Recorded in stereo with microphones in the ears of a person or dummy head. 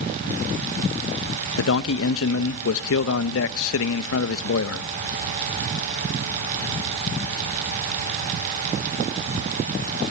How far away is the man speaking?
About 1.1 m.